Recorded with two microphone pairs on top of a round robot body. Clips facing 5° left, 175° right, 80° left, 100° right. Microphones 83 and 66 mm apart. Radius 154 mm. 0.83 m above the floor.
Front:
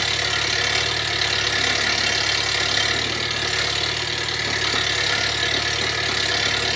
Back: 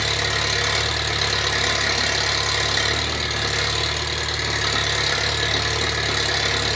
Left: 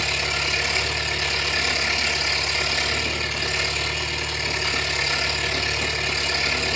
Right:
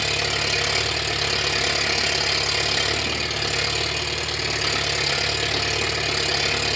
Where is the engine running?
110° right, 3 m.